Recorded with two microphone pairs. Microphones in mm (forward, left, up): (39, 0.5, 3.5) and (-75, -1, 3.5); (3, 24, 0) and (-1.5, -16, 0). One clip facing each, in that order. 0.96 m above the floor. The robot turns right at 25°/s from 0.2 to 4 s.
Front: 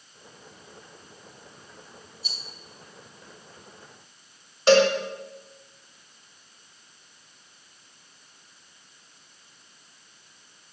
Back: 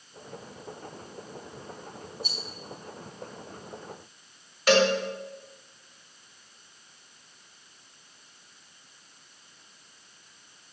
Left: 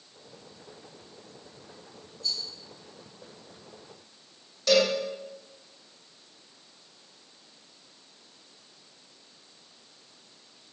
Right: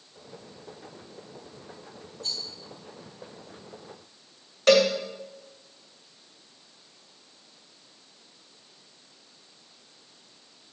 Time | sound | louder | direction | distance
2.2 | a rattle | back 6 dB, left 1 dB | 130° right | 3.5 m
4.7 | a cowbell | front 4 dB, right 4 dB | 60° right | 1.7 m